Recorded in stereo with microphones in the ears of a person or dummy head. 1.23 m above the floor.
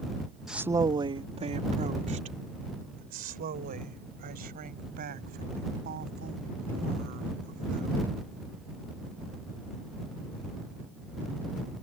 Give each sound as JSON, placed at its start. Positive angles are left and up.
{"t": 0.5, "sound": "a woman speaking", "side_deg": 0}